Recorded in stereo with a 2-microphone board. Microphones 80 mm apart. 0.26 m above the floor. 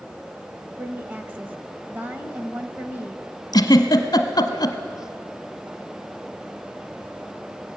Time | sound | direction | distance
0.8 | a woman speaking | 25° right (ahead or behind) | 0.9 m
3.5 | a giggle | 60° left (ahead or behind) | 1.0 m